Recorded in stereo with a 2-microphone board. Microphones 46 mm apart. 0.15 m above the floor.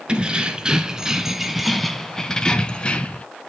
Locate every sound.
0.1 s keys jangling: 25° right (ahead or behind), 1.5 m; by 3.2 s 30° left (ahead or behind), 1.2 m